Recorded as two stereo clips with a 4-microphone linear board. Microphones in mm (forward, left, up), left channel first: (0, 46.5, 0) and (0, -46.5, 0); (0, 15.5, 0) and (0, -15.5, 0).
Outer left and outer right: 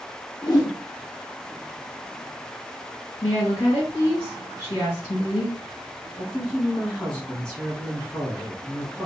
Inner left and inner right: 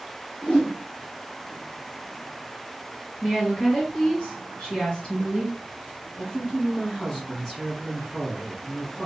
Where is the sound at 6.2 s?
10° left (ahead or behind), 1.7 m.